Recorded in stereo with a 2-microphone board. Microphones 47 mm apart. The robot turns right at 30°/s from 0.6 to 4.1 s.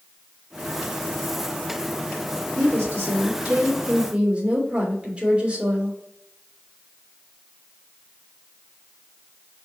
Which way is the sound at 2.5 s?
75° right.